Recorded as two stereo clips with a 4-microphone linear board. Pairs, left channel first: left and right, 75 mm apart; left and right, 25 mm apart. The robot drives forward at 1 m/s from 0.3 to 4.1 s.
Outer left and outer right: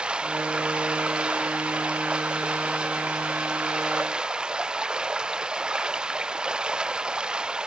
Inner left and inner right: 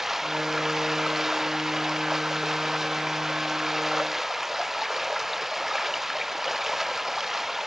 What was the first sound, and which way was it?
Running water, 10° right (ahead or behind).